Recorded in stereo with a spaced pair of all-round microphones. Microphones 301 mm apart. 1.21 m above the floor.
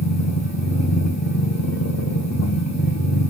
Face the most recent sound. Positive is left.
turn(degrees=60)  # may be behind; listen again after turning